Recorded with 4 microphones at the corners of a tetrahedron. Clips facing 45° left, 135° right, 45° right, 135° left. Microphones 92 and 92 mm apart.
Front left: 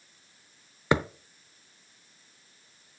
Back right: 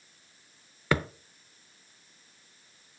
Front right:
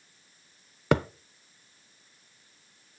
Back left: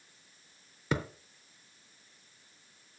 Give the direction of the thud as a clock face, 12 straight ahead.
1 o'clock.